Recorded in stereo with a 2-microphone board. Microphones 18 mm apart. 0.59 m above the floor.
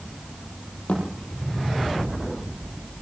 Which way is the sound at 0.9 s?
75° left (ahead or behind).